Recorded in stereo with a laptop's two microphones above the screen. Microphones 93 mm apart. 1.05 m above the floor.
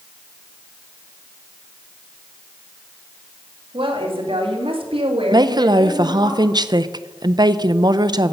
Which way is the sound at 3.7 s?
70° right (ahead or behind).